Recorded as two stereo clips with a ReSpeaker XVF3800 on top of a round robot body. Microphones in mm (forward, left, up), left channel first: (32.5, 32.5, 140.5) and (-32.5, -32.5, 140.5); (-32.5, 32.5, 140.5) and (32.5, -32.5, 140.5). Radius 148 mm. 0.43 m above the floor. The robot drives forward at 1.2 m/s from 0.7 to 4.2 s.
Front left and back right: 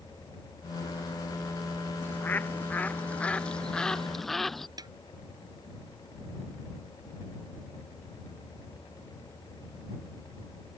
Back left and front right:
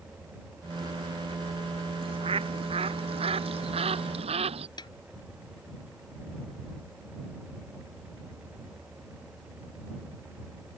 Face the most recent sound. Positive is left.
turn(degrees=175)